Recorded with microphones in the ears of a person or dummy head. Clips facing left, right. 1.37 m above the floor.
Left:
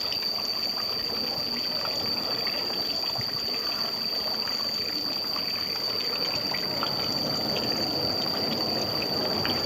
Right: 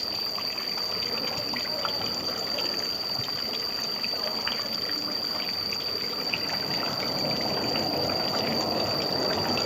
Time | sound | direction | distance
0.0 | an insect | 5° left (ahead or behind) | 1.1 m